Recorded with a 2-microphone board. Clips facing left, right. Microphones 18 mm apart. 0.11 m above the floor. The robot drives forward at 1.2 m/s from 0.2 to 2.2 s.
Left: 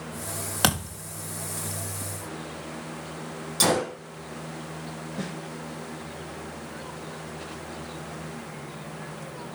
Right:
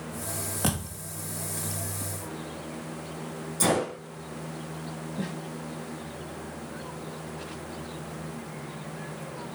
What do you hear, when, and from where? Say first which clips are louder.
0.6 s a thud: left 7 dB; 85° left, 4 m; by 1.0 s 80° left, 4 m
3.6 s a gunshot: left 2 dB; 60° left (ahead or behind), 5 m
5.2 s a snare drum: even; 70° left (ahead or behind), 5 m